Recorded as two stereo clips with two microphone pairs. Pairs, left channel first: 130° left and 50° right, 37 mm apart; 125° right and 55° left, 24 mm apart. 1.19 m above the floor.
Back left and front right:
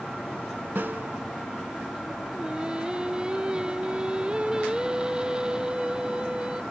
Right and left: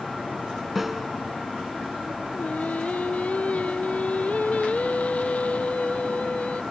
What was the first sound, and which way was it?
A snare drum, 25° right.